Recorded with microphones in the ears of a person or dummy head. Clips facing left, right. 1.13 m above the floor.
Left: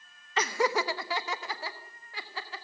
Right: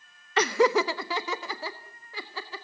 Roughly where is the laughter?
Right.